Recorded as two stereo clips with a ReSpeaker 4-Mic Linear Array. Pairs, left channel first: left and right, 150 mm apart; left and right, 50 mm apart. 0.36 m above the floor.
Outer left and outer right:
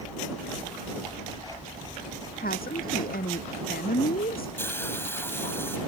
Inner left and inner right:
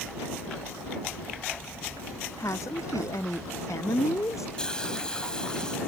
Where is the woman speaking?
85° left.